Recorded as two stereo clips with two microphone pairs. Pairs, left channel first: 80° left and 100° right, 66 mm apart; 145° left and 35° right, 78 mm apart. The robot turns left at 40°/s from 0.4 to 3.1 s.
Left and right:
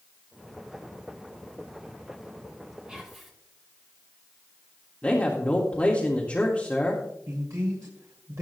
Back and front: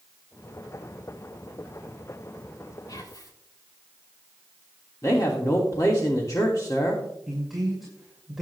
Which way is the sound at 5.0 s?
140° left.